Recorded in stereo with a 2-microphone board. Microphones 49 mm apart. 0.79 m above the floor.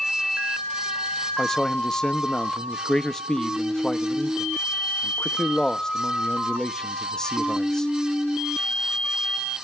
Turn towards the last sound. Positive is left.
turn(degrees=15)  # may be behind; listen again after turning